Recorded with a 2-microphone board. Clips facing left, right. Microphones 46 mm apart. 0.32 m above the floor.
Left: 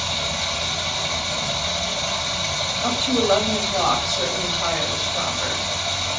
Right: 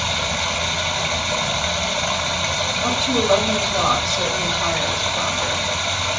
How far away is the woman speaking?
About 1.6 m.